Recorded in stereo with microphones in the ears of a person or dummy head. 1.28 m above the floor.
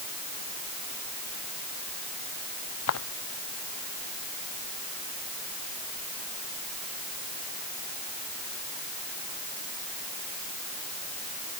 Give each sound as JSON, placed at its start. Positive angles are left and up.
{"t": 2.9, "sound": "footsteps", "side_deg": 80}